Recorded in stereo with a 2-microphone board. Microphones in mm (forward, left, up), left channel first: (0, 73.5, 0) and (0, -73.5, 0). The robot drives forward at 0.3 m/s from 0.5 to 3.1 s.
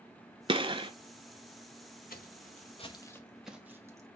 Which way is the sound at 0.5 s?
35° right (ahead or behind).